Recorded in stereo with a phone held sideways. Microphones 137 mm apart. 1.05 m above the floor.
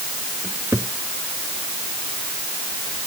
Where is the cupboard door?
20° right (ahead or behind).